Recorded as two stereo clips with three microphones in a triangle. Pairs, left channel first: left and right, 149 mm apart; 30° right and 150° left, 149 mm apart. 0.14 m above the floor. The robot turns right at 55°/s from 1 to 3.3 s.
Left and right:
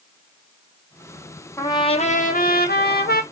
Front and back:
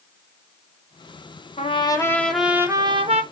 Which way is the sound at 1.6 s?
15° left.